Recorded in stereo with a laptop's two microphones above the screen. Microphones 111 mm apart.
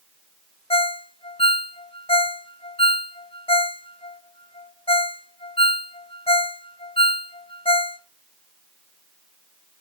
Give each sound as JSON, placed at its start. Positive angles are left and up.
{"t": 0.7, "sound": "a ringtone", "side_deg": 55, "distance_m": 0.6}